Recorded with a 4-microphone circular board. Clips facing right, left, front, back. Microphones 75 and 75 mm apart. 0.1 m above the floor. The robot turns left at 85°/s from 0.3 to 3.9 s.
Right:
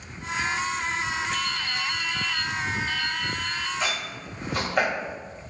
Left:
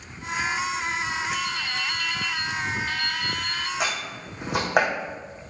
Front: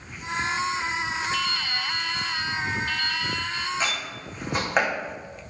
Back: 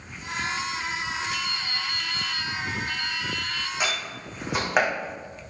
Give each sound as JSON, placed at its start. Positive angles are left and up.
{"t": 1.3, "sound": "dripping", "azimuth_deg": -105, "distance_m": 1.5}
{"t": 3.8, "sound": "a door slam", "azimuth_deg": 105, "distance_m": 4.0}